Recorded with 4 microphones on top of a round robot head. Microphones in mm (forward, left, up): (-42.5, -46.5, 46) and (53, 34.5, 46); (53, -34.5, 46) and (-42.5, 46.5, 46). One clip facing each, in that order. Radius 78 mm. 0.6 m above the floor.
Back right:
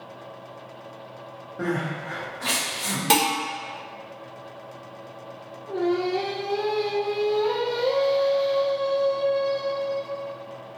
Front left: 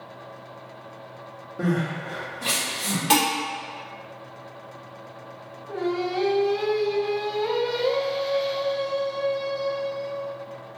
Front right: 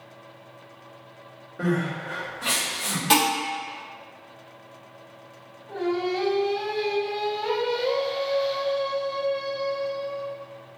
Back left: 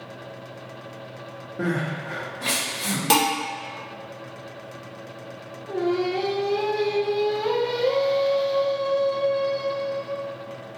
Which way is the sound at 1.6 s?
125° left.